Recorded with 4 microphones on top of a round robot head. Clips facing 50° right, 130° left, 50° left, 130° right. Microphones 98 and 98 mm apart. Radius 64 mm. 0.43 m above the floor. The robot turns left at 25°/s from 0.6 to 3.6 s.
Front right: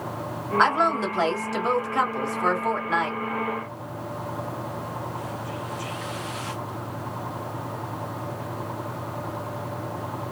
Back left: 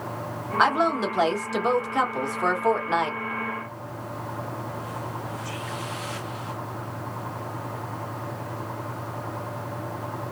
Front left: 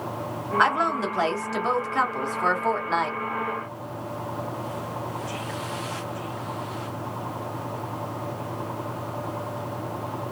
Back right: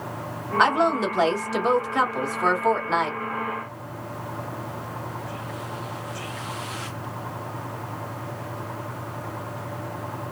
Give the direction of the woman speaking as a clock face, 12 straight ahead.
5 o'clock.